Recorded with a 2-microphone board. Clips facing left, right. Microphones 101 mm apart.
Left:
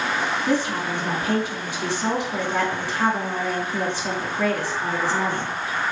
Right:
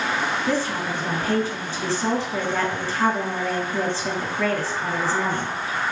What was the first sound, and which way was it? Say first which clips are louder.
A woman speaking: left 1 dB; 15° left (ahead or behind).